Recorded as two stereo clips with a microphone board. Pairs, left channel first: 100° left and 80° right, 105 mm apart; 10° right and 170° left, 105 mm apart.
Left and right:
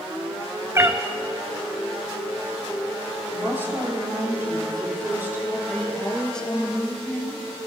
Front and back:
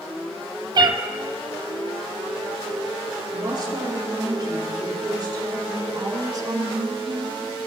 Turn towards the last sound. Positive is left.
turn(degrees=180)